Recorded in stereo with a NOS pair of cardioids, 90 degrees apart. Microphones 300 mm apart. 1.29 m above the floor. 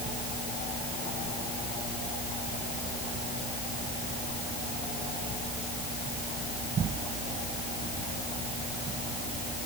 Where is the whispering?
No whispering in this recording.